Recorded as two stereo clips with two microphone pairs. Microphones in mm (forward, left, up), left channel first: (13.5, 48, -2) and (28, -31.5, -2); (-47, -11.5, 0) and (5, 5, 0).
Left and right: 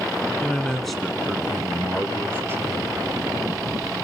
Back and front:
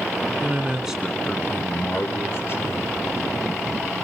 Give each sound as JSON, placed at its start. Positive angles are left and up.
{"t": 0.4, "sound": "a man speaking", "azimuth_deg": 40, "distance_m": 1.5}